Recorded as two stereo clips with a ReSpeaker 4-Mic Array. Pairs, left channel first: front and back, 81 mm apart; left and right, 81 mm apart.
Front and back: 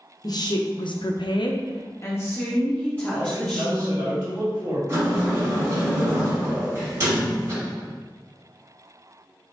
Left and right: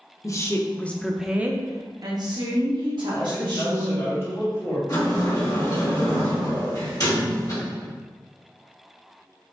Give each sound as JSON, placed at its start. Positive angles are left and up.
{"t": 0.2, "sound": "a woman speaking", "azimuth_deg": 40, "distance_m": 0.9}
{"t": 3.1, "sound": "a man speaking", "azimuth_deg": 145, "distance_m": 2.0}
{"t": 4.9, "sound": "a sliding door", "azimuth_deg": 130, "distance_m": 2.0}